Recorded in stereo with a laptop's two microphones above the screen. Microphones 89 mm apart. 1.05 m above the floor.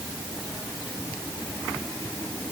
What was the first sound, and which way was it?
Only background noise.